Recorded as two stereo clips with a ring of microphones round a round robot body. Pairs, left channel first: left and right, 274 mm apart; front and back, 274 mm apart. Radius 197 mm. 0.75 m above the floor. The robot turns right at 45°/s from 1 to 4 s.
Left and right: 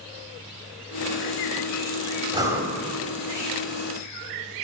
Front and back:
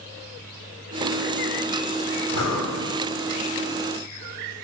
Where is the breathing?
15° right, 3 m; by 2.8 s 5° left, 3 m.